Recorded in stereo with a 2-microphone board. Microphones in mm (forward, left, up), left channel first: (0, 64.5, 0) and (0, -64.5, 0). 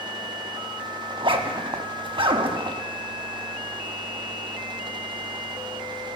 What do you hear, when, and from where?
1.1 s a zipper: 40° right (ahead or behind), 1.0 m